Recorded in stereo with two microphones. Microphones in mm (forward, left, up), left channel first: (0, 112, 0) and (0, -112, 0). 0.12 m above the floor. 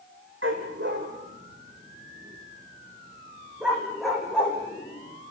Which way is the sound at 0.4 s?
65° right (ahead or behind).